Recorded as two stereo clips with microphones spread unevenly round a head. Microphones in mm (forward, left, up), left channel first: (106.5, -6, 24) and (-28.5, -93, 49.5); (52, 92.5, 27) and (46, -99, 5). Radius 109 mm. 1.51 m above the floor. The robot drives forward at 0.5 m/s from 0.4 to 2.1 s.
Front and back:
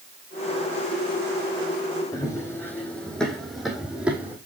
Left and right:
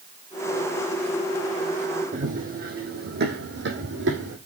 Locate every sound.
2.1 s running footsteps: 40° right, 4 m; by 4.4 s 70° right, 4.5 m